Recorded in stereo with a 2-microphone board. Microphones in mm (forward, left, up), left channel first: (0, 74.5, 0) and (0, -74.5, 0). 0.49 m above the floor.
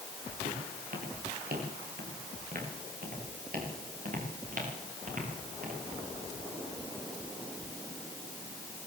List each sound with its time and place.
0.5 s footsteps: 75° right (ahead or behind), 8 m; by 5.8 s 60° right (ahead or behind), 11.5 m